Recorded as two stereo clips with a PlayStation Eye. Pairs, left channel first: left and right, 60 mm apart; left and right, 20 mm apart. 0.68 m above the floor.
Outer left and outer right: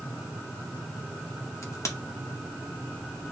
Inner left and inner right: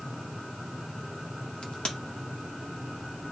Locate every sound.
1.6 s a crack: 60° left (ahead or behind), 2 m